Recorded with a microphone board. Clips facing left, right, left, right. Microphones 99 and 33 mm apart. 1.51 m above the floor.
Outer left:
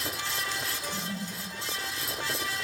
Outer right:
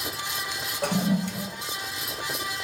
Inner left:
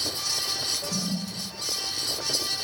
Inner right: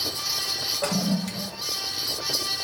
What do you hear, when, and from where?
0.8 s a toilet flushing: 65° right (ahead or behind), 0.8 m